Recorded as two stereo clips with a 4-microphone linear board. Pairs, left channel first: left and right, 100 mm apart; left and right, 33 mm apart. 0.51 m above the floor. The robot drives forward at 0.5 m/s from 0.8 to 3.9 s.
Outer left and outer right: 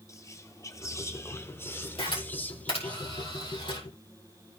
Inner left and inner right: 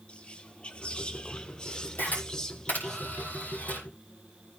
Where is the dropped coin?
No dropped coin in this recording.